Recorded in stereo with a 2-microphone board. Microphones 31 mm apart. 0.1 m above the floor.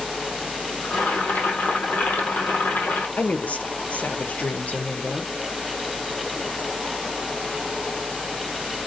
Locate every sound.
0.8 s boiling: 70° left (ahead or behind), 4 m
3.2 s a woman speaking: 55° left (ahead or behind), 2.5 m